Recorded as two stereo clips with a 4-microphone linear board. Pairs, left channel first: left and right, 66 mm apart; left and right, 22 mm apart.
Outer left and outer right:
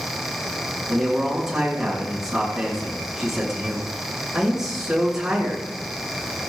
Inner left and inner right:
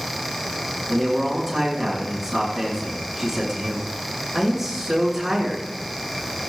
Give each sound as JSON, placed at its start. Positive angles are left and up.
{"t": 0.9, "sound": "a man speaking", "side_deg": -5, "distance_m": 9.0}